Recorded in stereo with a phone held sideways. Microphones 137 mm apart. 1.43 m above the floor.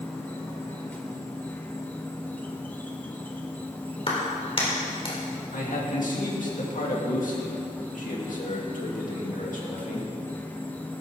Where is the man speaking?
75° left (ahead or behind), 2.5 m.